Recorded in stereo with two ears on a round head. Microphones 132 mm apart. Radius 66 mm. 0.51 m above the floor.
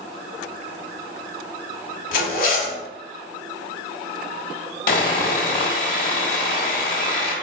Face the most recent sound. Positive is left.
turn(degrees=60)  # may be behind; listen again after turning